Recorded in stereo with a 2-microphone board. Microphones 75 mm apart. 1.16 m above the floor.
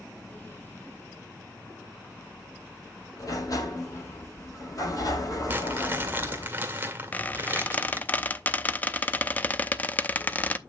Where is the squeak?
25° left (ahead or behind), 0.6 m.